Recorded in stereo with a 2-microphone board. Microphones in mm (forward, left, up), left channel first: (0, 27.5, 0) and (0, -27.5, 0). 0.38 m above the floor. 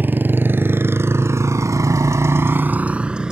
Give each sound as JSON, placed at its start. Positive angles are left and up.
{"t": 0.0, "sound": "a motorcycle", "side_deg": -35}